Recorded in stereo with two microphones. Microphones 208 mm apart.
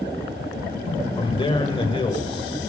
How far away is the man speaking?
About 1.6 m.